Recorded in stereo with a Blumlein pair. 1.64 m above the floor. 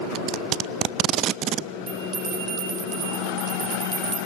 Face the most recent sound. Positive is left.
turn(degrees=-30)